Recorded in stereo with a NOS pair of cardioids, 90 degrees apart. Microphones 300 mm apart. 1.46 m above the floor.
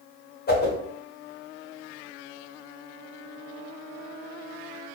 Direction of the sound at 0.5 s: 35° left.